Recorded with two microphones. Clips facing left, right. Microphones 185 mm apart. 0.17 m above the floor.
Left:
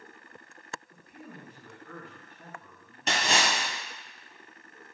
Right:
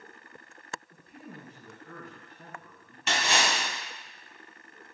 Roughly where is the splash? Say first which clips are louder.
Left 1 dB; left.